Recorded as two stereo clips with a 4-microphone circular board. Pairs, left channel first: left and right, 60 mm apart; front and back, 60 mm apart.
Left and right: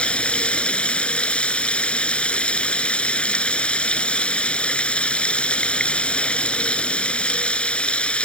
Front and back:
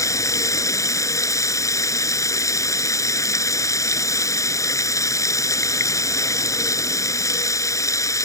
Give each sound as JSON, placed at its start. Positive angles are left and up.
{"t": 0.0, "sound": "running water", "azimuth_deg": 20}